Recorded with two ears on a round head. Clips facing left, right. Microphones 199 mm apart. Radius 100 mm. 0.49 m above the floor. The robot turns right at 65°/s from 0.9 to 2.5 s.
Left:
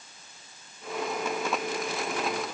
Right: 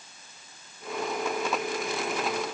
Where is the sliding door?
I don't hear a sliding door.